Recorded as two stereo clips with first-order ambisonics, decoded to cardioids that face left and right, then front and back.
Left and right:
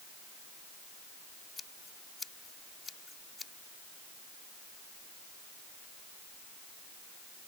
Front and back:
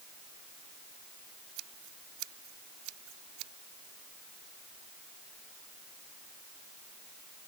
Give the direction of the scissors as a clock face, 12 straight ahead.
7 o'clock.